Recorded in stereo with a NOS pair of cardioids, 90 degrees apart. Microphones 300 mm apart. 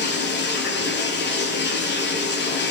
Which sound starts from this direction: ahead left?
Running water, at 0.0 s.